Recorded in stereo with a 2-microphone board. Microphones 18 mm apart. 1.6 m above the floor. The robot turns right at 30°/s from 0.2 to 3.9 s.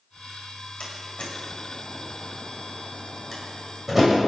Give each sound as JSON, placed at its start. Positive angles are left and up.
{"t": 0.8, "sound": "a door slam", "side_deg": 75, "distance_m": 7.0}